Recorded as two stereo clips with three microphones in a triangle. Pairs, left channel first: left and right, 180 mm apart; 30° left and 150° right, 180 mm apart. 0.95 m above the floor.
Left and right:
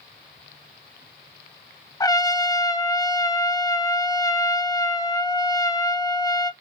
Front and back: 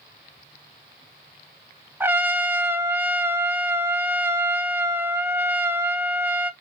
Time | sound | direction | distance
2.0 | a trumpet | 140° left | 0.7 m